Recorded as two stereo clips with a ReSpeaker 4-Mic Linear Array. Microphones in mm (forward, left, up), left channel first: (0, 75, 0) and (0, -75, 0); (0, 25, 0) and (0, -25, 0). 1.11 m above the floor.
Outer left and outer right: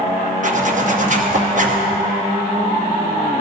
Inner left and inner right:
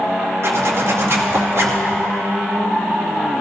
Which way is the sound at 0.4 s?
60° right (ahead or behind).